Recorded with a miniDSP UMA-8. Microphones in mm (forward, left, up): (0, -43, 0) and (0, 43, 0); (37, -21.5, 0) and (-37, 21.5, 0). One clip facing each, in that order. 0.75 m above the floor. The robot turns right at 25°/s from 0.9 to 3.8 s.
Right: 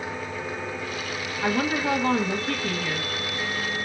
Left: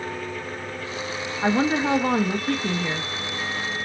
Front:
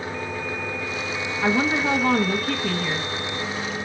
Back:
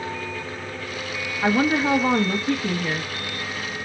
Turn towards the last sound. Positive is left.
turn(degrees=135)